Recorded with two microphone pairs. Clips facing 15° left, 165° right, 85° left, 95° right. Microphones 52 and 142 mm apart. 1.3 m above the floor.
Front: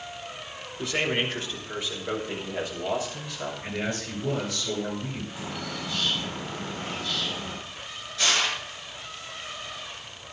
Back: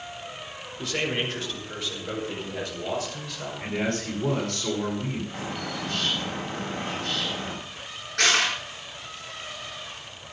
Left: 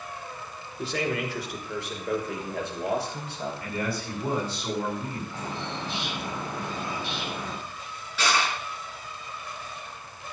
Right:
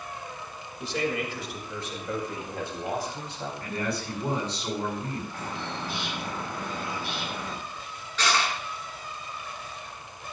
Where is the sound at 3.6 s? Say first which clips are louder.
Back 6 dB, right 2 dB; 170° left, 9 m.